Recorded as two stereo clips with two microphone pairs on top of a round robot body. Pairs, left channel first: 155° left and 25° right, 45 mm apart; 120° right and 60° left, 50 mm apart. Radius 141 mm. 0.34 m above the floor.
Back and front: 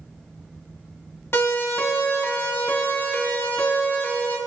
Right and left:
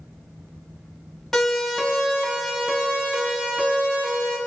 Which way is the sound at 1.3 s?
155° left.